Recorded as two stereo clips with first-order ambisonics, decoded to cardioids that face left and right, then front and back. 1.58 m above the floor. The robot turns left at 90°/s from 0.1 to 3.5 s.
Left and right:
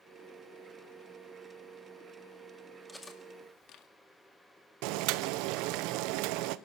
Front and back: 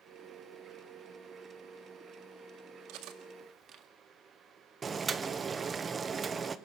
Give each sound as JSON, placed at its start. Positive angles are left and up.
{"t": 2.9, "sound": "cutlery clinking", "azimuth_deg": 180, "distance_m": 1.8}
{"t": 4.8, "sound": "boiling", "azimuth_deg": -110, "distance_m": 0.8}